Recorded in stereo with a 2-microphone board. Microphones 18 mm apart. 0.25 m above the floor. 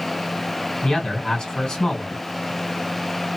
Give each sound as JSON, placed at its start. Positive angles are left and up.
{"t": 0.8, "sound": "a man speaking", "side_deg": 40, "distance_m": 2.0}